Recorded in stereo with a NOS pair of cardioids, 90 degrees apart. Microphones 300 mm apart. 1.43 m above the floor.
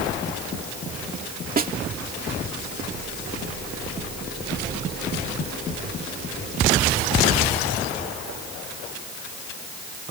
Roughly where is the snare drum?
Ahead right.